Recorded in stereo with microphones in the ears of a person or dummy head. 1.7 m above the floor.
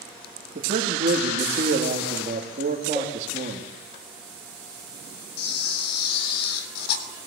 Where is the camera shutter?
55° left (ahead or behind), 3 m.